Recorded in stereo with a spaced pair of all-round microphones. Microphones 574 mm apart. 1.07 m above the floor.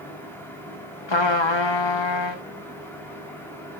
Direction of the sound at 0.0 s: 5° left (ahead or behind).